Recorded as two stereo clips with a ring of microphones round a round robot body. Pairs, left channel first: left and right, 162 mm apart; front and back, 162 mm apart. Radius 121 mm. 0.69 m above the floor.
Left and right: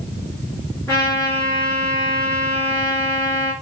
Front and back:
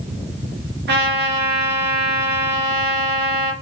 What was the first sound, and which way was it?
A trumpet, 170° left.